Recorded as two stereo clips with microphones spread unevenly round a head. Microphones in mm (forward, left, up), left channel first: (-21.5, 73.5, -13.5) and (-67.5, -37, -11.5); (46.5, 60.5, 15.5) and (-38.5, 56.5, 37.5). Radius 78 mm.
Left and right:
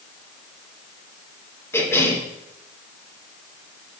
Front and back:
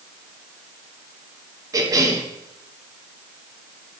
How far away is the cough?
About 2.5 m.